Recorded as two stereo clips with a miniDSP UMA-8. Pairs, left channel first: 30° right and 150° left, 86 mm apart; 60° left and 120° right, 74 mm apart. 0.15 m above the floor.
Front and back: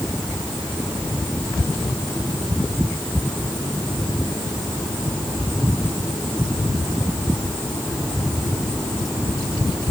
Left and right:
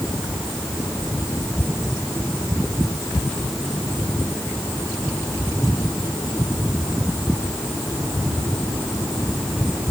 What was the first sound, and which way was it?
Only background noise.